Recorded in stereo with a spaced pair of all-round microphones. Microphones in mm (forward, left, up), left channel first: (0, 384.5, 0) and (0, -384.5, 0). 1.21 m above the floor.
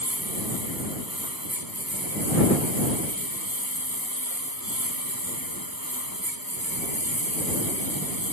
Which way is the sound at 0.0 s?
30° right (ahead or behind).